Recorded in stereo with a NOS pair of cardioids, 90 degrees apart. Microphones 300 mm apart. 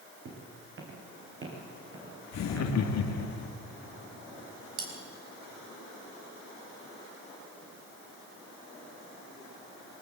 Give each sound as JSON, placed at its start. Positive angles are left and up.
{"t": 0.2, "sound": "footsteps", "azimuth_deg": -45, "distance_m": 5.0}
{"t": 2.3, "sound": "laughter", "azimuth_deg": 65, "distance_m": 2.0}
{"t": 4.8, "sound": "cutlery clinking", "azimuth_deg": -50, "distance_m": 4.5}